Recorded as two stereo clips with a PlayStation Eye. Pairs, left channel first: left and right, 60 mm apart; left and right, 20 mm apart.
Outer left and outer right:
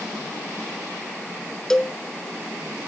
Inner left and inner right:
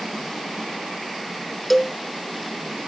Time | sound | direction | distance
1.7 | a cowbell | 10° left (ahead or behind) | 0.6 m